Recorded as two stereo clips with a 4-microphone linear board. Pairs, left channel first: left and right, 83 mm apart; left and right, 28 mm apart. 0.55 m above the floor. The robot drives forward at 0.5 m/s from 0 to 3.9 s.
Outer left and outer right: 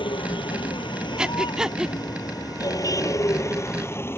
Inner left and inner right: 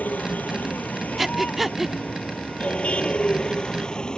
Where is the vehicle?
80° left; by 4.2 s 30° left (ahead or behind).